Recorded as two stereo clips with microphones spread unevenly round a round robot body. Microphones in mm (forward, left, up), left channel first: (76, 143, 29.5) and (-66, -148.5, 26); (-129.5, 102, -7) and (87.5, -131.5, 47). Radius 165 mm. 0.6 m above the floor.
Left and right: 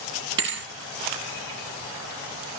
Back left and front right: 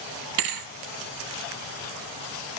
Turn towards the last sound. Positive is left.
turn(degrees=-60)